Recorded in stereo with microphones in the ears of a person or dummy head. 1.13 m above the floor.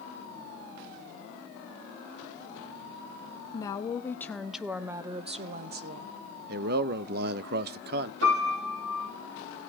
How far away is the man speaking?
About 0.8 m.